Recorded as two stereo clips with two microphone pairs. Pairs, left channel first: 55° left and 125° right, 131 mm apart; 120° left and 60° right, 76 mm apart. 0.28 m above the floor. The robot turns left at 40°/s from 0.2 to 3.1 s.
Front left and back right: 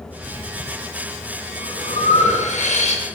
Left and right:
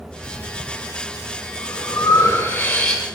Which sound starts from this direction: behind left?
Breathing, at 0.2 s.